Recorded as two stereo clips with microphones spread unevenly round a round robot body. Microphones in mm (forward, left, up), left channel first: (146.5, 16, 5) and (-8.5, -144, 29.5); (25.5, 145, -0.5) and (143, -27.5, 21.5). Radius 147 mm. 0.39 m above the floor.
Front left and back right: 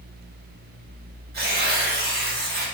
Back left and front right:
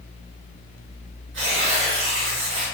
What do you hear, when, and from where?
1.3 s tearing paper: 90° right, 1.6 m